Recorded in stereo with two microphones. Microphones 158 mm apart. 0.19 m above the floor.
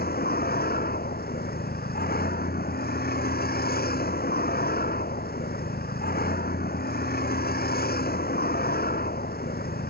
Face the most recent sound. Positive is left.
turn(degrees=80)